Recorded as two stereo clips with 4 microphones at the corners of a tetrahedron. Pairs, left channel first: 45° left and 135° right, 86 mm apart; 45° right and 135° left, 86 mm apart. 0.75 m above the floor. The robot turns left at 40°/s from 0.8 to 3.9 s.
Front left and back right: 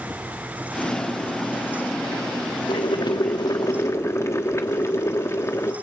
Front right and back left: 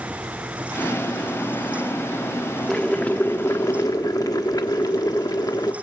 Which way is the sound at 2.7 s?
40° left.